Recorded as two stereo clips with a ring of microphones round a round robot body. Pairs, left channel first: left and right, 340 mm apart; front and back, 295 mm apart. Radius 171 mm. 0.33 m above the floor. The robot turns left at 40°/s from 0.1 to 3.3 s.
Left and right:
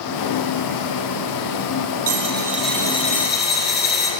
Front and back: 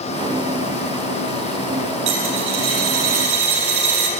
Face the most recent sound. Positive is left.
turn(degrees=155)